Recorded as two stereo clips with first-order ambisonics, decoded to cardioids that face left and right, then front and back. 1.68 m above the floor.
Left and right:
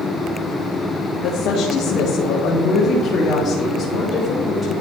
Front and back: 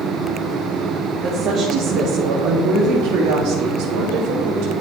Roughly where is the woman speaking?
Behind left.